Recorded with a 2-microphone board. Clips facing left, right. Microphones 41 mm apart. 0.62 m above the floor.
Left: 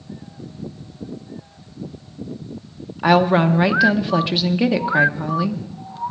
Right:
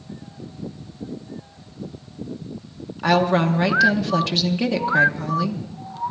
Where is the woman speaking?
15° left (ahead or behind), 0.8 m.